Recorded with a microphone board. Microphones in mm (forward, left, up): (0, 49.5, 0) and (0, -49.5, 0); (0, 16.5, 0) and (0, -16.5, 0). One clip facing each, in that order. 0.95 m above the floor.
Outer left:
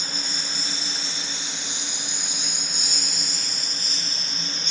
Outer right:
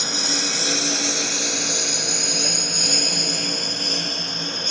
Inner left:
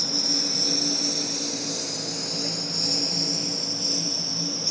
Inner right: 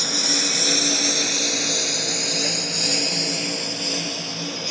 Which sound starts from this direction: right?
A lawn mower, at 0.0 s.